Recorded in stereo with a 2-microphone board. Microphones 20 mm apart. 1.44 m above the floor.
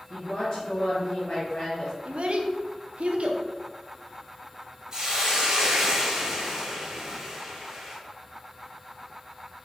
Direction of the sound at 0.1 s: 50° left (ahead or behind).